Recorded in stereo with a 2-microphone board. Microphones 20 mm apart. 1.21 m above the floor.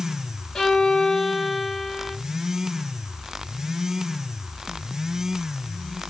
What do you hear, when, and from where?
0.6 s a violin: 40° left (ahead or behind), 2 m